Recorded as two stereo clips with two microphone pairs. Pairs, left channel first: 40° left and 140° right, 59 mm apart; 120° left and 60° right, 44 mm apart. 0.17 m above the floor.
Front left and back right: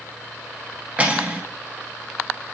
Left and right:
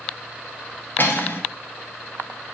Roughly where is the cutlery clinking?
Behind left.